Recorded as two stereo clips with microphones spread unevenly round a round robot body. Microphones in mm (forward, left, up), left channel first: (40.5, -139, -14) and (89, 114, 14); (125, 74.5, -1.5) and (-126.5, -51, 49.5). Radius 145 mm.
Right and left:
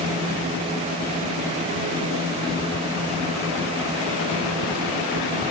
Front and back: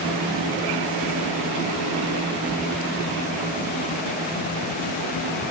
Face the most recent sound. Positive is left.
No sound to turn to.